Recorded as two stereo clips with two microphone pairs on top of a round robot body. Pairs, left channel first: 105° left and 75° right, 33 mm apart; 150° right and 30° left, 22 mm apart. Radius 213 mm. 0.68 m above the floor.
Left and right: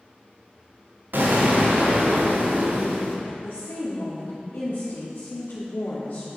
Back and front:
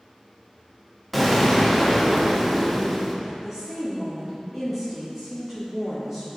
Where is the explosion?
55° right, 1.2 m.